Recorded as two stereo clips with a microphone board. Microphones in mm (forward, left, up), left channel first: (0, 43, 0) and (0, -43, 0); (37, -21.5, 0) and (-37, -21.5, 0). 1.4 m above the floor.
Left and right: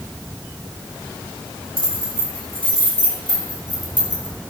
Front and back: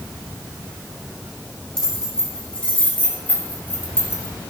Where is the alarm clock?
I don't hear an alarm clock.